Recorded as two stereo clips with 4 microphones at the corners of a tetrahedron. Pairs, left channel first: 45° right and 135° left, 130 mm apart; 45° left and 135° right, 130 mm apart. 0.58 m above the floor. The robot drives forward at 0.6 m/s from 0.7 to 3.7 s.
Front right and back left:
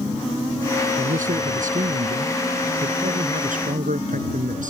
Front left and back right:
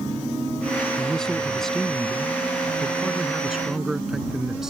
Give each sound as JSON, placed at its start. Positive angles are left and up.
{"t": 1.0, "sound": "a man speaking", "azimuth_deg": 130}